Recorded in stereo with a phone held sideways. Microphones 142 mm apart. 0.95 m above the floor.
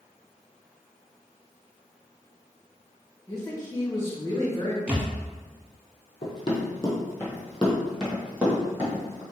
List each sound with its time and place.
3.3 s a man speaking: 20° left (ahead or behind), 0.9 m
4.9 s a thud: 10° right (ahead or behind), 1.4 m
6.2 s running footsteps: 35° left (ahead or behind), 1.2 m; by 9.2 s 20° right (ahead or behind), 1.7 m